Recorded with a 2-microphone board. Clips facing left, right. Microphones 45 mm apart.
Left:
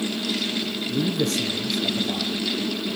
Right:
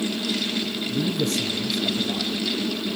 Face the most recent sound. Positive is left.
turn(degrees=65)  # may be behind; listen again after turning